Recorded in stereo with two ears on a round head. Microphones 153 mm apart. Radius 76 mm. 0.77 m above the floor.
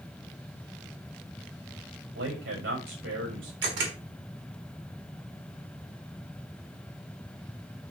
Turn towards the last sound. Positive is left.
turn(degrees=-75)  # may be behind; listen again after turning